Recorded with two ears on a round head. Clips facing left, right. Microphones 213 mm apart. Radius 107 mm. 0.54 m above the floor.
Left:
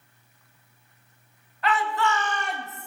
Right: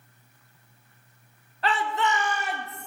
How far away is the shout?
About 1.1 m.